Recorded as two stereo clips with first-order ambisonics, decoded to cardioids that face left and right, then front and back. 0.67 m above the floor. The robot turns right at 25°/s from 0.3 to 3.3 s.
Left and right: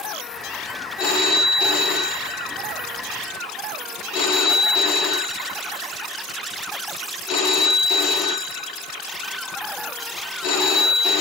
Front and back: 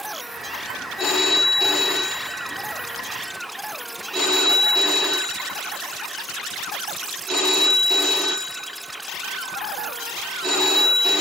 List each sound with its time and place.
1.0 s a phone ringing: 55° left, 0.7 m; by 11.2 s 115° left, 0.7 m